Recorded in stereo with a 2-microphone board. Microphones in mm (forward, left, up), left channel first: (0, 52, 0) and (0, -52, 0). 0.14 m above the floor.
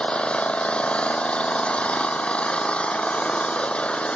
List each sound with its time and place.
0.0 s an engine running: 10° left (ahead or behind)